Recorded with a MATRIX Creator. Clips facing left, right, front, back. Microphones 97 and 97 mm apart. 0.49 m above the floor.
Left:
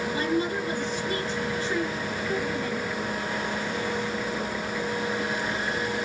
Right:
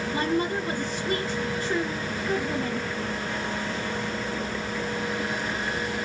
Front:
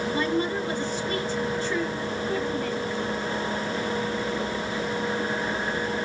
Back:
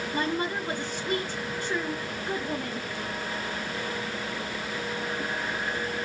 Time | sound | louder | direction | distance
0.1 | a woman speaking | right 2 dB, front 1 dB | 115° right | 1.5 m